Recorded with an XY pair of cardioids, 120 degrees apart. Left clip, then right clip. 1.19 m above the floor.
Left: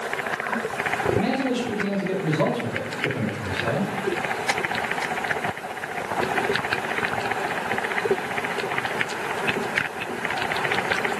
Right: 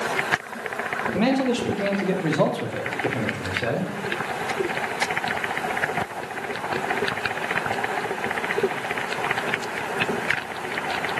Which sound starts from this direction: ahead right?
A man speaking, at 1.1 s.